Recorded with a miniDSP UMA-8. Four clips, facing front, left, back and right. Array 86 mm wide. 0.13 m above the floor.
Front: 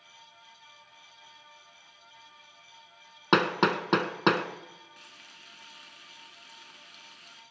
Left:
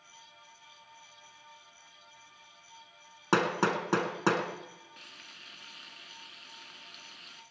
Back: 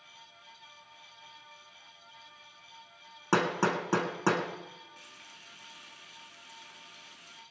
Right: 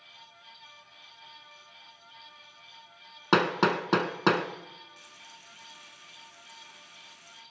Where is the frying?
70° left, 1.7 m.